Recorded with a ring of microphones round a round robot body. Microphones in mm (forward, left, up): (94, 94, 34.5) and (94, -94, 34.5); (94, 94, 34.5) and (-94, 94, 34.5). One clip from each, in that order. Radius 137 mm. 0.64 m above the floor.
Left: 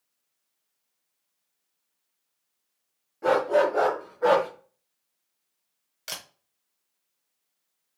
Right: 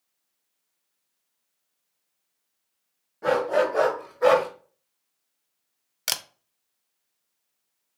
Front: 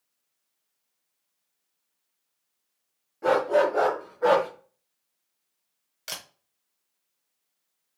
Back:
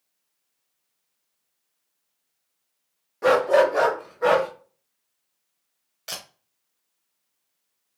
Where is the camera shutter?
70° right, 0.6 m.